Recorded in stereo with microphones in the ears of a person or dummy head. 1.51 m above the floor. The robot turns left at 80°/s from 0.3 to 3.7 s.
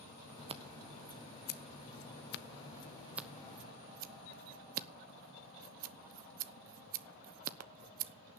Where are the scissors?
25° right (ahead or behind), 0.8 m; by 8.4 s 45° right (ahead or behind), 0.8 m.